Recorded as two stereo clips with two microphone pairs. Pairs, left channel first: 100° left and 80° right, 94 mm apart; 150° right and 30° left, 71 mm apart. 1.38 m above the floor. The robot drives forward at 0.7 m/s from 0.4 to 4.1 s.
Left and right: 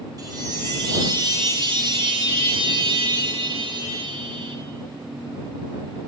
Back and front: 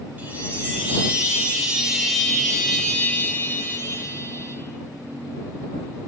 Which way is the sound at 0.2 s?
35° right.